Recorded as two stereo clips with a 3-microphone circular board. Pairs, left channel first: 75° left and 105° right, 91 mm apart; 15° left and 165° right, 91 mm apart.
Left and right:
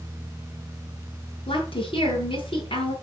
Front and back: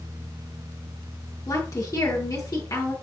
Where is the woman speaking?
65° left, 7 m.